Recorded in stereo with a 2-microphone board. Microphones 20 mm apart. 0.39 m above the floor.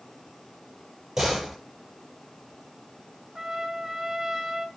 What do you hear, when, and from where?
1.2 s a door slam: 15° right (ahead or behind), 8.5 m
3.4 s a trumpet: 20° right (ahead or behind), 1.3 m